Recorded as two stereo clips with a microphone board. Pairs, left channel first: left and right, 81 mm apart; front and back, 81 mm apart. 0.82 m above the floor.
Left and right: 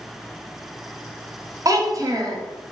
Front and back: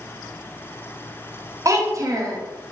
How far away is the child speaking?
About 0.5 m.